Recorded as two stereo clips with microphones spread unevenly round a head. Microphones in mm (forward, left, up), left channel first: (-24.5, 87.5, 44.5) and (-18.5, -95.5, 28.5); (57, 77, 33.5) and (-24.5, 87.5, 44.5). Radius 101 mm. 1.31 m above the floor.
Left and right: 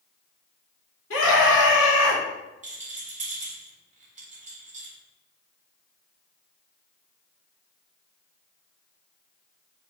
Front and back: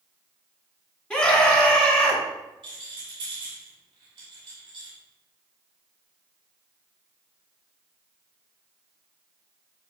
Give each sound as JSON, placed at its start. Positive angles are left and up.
{"t": 1.1, "sound": "a scream", "azimuth_deg": 70, "distance_m": 3.0}
{"t": 2.6, "sound": "a rattle", "azimuth_deg": -135, "distance_m": 2.0}